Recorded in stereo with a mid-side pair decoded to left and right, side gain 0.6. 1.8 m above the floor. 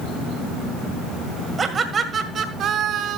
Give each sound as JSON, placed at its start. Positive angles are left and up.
{"t": 1.6, "sound": "laughter", "azimuth_deg": -30, "distance_m": 1.7}